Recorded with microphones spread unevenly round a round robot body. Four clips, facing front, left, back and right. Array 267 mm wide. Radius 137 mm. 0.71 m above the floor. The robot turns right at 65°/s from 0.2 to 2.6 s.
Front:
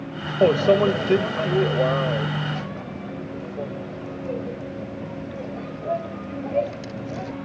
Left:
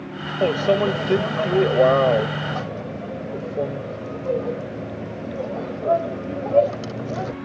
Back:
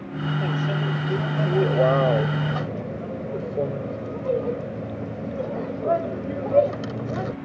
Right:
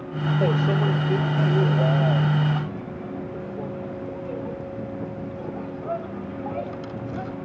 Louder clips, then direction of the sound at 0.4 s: Left 6 dB, front 14 dB; 5° left.